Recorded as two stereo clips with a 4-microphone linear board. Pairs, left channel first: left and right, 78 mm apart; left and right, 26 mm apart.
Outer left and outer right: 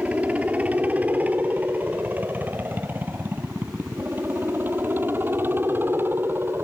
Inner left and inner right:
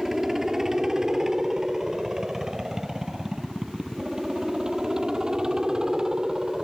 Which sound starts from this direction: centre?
A helicopter, at 0.0 s.